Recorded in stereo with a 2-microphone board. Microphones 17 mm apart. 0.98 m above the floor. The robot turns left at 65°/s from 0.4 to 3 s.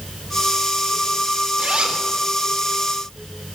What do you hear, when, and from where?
1.6 s a zipper: 55° right (ahead or behind), 3.5 m; by 2.0 s 80° right, 3.5 m